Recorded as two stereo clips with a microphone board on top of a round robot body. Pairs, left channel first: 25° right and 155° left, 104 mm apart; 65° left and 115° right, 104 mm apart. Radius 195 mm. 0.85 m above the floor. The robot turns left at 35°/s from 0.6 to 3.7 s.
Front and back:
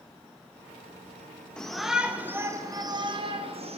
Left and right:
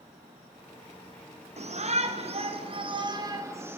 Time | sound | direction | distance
1.6 | a shout | 105° right | 4 m